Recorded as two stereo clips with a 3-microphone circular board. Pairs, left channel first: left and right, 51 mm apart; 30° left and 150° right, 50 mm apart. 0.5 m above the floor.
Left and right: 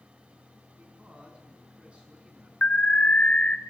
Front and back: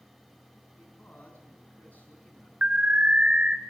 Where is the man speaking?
25° right, 4.5 m.